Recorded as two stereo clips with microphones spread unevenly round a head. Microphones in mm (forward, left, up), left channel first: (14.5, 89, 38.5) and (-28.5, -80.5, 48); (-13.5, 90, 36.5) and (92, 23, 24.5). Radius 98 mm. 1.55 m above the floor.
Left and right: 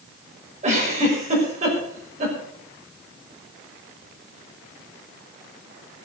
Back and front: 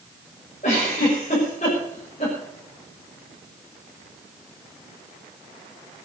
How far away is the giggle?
About 6 m.